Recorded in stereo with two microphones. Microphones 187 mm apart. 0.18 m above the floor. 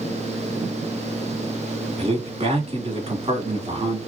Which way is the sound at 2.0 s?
35° right (ahead or behind).